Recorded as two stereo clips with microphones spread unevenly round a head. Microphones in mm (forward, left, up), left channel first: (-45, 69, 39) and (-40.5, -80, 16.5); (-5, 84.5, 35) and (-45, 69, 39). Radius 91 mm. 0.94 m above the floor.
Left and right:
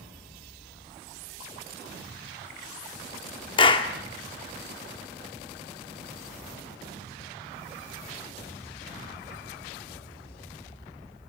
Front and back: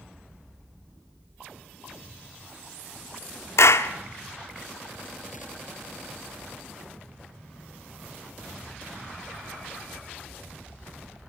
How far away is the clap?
About 1.6 m.